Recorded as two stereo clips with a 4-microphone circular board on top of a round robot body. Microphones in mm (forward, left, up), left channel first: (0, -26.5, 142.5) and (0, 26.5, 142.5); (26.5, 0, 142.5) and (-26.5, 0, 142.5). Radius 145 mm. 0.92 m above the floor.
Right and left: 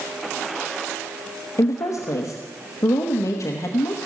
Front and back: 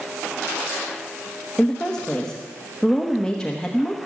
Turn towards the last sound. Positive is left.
turn(degrees=-75)